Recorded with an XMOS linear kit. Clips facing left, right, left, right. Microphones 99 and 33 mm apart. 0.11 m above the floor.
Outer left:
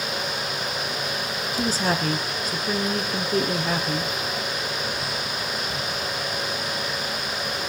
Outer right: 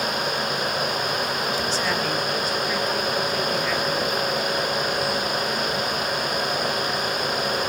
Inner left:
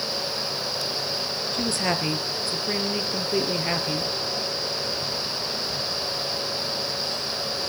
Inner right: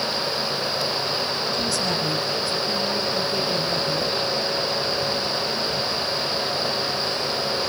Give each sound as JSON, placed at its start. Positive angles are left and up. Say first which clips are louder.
{"t": 1.5, "sound": "a woman speaking", "louder": "even, inner left 2 dB", "side_deg": 40, "distance_m": 2.5}